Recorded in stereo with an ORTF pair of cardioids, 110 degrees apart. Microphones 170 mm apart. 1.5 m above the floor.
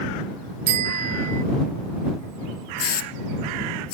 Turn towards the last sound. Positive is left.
turn(degrees=60)